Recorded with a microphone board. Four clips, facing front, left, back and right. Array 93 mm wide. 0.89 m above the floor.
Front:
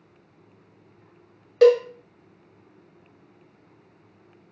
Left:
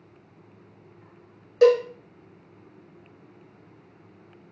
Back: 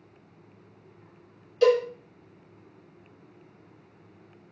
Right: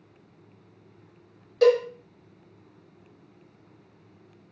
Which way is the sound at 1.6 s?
15° left.